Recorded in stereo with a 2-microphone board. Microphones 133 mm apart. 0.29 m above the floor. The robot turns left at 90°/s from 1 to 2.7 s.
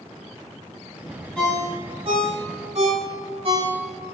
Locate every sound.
1.4 s a ringtone: 5° left (ahead or behind), 1.2 m; by 4.1 s 55° right (ahead or behind), 1.2 m